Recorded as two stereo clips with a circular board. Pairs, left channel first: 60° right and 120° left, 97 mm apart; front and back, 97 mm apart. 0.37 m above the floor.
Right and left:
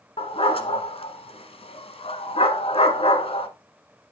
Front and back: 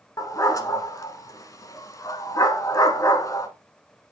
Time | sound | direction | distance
0.2 | a dog barking | 55° right | 1.1 m